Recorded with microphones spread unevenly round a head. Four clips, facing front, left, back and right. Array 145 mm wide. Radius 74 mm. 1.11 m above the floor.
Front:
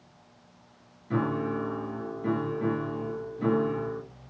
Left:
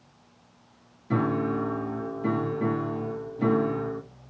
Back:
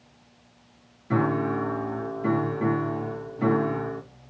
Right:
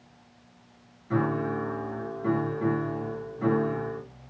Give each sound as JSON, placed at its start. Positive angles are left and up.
{"t": 1.1, "sound": "a piano", "azimuth_deg": 135, "distance_m": 0.6}